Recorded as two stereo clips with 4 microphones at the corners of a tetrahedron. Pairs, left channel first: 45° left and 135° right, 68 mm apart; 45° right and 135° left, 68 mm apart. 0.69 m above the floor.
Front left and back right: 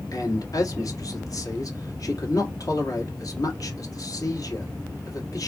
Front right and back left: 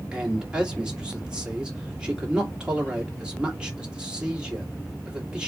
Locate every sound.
0.1 s a man speaking: 60° left, 1.8 m